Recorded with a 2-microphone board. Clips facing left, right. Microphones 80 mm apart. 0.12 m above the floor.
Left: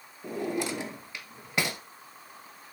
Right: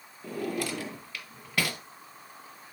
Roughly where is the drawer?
Left.